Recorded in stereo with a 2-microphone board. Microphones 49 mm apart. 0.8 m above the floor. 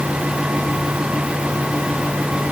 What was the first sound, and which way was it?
Only background noise.